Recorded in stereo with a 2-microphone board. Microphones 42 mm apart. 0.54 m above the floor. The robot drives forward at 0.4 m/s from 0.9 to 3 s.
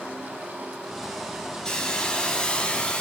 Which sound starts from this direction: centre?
A hiss, at 1.6 s.